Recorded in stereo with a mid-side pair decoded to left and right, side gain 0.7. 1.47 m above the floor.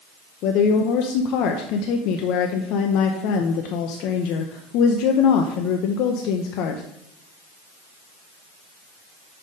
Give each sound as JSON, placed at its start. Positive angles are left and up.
{"t": 0.4, "sound": "a woman speaking", "azimuth_deg": 65, "distance_m": 0.7}